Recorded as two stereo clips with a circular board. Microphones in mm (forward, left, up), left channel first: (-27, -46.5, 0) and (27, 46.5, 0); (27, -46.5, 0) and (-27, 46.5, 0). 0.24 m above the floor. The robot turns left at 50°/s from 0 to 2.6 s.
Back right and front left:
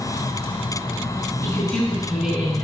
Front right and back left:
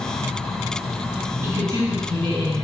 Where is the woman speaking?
Straight behind, 2.5 m; by 2.6 s 125° left, 2.5 m.